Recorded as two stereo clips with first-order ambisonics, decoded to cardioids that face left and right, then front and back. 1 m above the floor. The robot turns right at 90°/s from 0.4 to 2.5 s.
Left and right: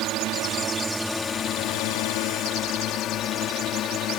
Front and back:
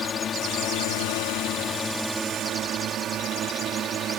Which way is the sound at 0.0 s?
60° right.